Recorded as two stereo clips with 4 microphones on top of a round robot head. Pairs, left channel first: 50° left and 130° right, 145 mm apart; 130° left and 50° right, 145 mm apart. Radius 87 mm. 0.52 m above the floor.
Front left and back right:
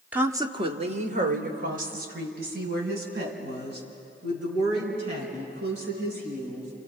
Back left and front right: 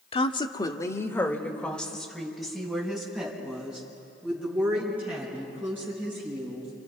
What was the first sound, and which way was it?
A woman speaking, 155° left.